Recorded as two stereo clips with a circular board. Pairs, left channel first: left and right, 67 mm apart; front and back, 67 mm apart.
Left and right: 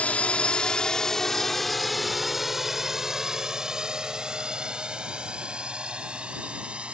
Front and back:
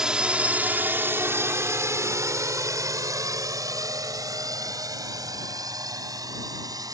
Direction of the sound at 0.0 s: 115° left.